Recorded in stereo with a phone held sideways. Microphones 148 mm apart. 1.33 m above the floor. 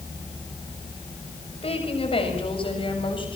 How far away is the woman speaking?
About 7 m.